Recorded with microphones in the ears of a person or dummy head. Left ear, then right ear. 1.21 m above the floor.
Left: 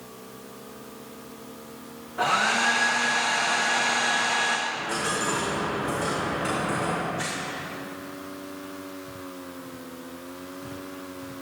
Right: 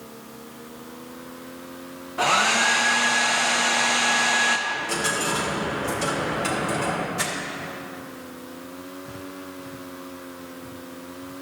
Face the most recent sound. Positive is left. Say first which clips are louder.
# right 3 dB
turn(degrees=-40)  # may be behind; listen again after turning